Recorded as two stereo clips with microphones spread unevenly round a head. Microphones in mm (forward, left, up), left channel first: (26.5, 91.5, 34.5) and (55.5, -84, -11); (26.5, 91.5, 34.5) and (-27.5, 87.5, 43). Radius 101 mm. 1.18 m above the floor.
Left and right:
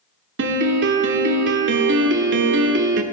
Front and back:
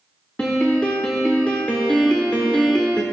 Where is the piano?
85° right, 1.0 m.